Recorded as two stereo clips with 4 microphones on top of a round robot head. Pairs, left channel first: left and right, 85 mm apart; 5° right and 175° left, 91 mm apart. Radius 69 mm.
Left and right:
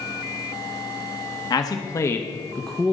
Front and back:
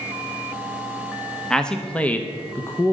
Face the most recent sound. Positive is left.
turn(degrees=-15)